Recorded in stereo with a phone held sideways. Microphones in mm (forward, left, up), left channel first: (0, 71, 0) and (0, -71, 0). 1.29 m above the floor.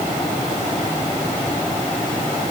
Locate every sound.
Only background noise.